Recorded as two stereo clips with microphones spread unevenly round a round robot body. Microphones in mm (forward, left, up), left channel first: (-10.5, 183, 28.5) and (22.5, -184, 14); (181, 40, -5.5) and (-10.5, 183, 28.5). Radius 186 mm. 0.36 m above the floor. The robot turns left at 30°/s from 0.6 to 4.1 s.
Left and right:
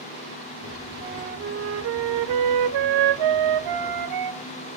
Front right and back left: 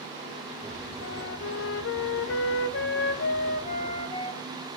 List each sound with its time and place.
1.0 s a flute: 15° right, 0.9 m; by 4.7 s 110° right, 0.9 m